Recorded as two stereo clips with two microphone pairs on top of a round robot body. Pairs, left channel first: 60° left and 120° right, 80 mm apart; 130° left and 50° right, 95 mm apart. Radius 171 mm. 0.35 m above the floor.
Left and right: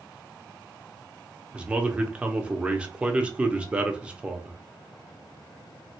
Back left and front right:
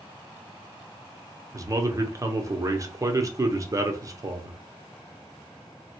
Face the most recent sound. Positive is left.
turn(degrees=-45)